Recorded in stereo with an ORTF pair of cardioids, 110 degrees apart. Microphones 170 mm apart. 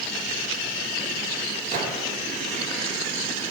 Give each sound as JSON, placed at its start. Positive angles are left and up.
{"t": 1.7, "sound": "a gunshot", "azimuth_deg": -60, "distance_m": 3.0}